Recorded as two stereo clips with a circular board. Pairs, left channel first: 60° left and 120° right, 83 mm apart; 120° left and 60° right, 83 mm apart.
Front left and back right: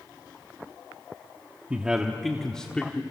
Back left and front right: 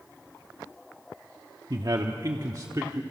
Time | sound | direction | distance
1.7 | a man speaking | 45° right | 1.0 m